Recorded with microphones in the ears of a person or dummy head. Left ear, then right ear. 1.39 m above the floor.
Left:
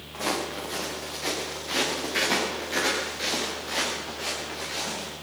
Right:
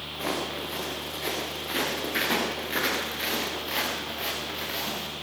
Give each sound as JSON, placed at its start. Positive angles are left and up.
{"t": 0.1, "sound": "footsteps", "side_deg": 10, "distance_m": 4.5}